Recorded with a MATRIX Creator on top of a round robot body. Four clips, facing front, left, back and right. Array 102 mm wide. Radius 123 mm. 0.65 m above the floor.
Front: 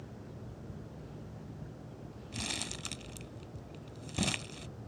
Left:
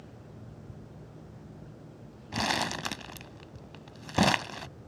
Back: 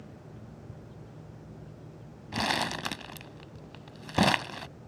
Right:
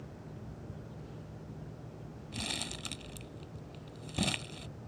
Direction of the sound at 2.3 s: 135° left.